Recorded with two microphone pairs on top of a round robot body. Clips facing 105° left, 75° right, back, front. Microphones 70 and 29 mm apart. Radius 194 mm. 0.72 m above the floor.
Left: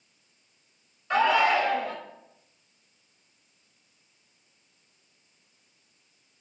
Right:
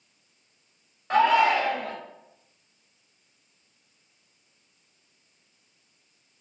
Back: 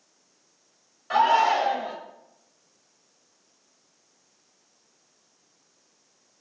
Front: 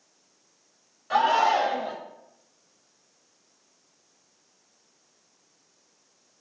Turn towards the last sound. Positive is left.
turn(degrees=-105)